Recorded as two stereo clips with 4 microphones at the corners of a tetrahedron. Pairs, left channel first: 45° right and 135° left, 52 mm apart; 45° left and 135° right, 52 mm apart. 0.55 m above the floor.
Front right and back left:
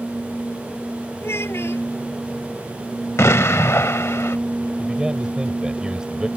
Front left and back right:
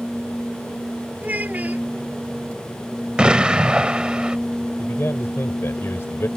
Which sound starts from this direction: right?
A child speaking, at 1.2 s.